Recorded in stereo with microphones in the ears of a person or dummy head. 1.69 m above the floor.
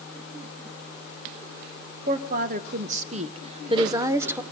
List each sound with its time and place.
2.1 s a woman speaking: 45° right (ahead or behind), 2.5 m; by 4.4 s 5° right (ahead or behind), 1.3 m